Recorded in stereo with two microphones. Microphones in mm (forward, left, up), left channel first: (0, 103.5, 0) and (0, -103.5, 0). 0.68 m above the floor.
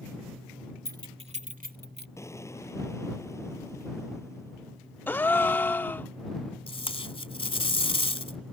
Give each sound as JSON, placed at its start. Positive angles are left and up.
{"t": 0.8, "sound": "keys jangling", "side_deg": -15}
{"t": 2.2, "sound": "an explosion", "side_deg": 15}
{"t": 5.1, "sound": "a gasp", "side_deg": 10}
{"t": 6.7, "sound": "tape being pulled", "side_deg": 25}